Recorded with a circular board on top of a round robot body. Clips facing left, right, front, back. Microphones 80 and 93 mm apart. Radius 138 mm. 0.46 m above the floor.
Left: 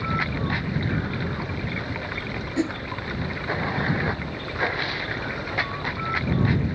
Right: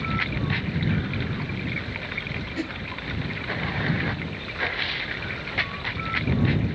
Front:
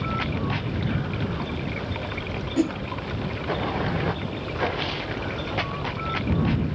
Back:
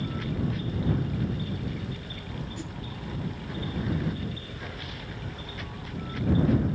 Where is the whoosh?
20° left.